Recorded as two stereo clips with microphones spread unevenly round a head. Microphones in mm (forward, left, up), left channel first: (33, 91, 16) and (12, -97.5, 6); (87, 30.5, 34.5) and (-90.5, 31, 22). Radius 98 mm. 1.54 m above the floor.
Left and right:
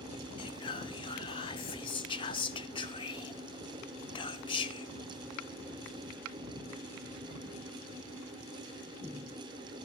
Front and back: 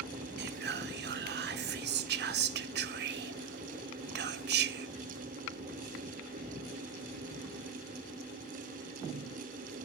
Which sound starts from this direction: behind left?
Whispering, at 0.4 s.